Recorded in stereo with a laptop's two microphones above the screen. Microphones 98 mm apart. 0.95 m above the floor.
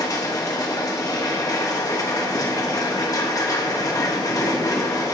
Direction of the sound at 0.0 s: 40° left (ahead or behind).